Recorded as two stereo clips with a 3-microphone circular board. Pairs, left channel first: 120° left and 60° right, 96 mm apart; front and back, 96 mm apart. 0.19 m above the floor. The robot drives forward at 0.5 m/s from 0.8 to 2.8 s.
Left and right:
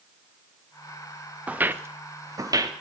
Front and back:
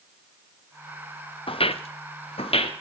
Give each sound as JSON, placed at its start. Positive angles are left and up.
{"t": 1.5, "sound": "footsteps", "azimuth_deg": 15, "distance_m": 1.1}